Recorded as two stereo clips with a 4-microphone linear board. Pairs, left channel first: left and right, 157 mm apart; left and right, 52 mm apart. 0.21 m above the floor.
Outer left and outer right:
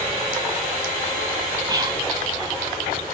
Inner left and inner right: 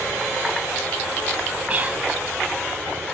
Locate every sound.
1.7 s whispering: 30° right (ahead or behind), 1.1 m